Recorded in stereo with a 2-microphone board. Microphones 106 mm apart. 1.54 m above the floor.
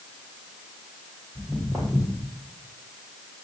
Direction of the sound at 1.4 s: 15° right (ahead or behind).